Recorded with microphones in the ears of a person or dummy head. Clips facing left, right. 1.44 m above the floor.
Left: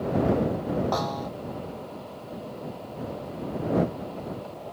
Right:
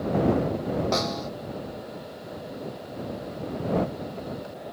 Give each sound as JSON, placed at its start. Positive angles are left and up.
{"t": 0.9, "sound": "a snare drum", "side_deg": -35}